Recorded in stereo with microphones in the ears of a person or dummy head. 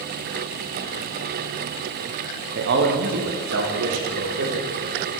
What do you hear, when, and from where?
2.5 s a man speaking: 55° right (ahead or behind), 1.2 m; by 4.7 s 75° right (ahead or behind), 2 m